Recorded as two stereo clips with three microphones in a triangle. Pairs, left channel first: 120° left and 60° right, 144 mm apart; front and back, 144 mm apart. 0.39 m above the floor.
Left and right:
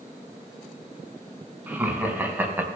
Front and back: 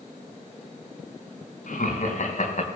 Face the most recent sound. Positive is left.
turn(degrees=15)